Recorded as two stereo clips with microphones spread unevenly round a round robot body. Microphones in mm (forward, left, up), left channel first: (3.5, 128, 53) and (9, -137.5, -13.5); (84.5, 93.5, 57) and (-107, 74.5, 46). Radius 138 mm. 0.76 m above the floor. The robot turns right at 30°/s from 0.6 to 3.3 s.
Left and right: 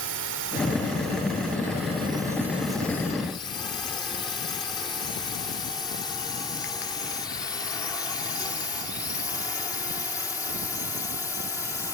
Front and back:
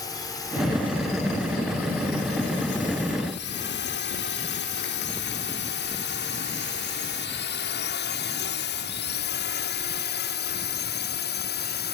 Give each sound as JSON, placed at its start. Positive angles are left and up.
{"t": 0.0, "sound": "a drone", "azimuth_deg": -70}